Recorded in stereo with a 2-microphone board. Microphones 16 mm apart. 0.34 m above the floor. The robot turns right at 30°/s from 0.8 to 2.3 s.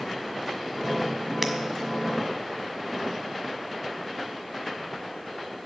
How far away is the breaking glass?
About 1.7 m.